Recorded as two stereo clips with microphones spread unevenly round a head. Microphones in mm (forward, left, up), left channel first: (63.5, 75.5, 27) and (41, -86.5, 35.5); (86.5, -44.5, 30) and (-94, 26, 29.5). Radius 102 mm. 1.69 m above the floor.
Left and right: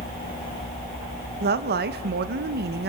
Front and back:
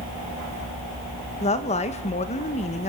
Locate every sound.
1.4 s a woman speaking: 80° right, 1.9 m